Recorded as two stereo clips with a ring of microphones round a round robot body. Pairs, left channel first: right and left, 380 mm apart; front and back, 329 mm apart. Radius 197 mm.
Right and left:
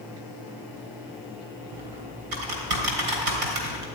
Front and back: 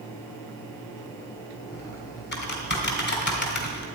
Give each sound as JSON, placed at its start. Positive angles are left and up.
{"t": 1.7, "sound": "typing on a keyboard", "azimuth_deg": 60, "distance_m": 3.0}